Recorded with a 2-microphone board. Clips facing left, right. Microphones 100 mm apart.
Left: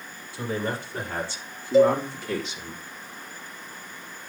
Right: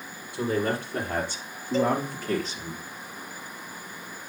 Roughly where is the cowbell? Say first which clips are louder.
Left 7 dB; centre.